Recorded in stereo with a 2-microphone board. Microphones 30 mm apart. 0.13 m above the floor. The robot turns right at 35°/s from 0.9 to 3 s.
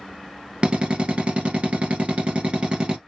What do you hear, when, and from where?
0.6 s a drill: 120° right, 1.6 m; by 3.0 s 45° right, 1.6 m